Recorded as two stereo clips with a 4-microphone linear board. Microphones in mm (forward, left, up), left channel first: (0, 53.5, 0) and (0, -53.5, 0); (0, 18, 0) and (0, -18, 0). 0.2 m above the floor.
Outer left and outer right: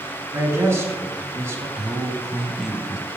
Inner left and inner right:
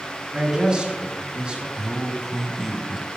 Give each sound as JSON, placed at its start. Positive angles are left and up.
{"t": 0.3, "sound": "a man speaking", "side_deg": -25, "distance_m": 3.0}
{"t": 1.8, "sound": "a man speaking", "side_deg": -5, "distance_m": 1.1}